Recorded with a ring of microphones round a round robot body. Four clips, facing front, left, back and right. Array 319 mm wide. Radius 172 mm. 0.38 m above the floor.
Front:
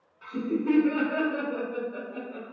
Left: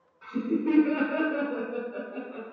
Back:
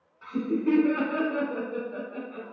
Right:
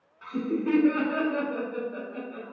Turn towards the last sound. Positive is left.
turn(degrees=160)